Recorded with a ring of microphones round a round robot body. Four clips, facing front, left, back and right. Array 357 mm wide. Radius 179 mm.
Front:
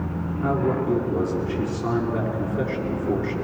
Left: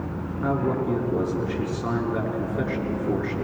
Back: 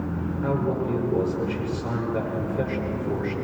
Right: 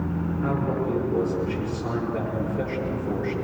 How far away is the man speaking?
About 6.5 m.